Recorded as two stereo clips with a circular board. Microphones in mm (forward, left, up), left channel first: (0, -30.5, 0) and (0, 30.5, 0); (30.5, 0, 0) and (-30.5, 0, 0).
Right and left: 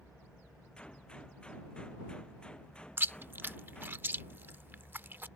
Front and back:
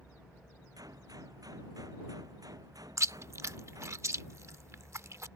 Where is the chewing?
145° left.